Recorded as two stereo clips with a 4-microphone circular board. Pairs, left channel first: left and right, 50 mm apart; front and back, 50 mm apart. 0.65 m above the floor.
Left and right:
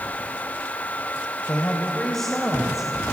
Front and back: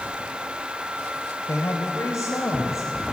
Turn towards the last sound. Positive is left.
turn(degrees=-15)